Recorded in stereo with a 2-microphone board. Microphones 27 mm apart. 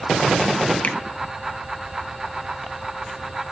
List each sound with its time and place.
0.8 s a finger snap: 60° left (ahead or behind), 1.2 m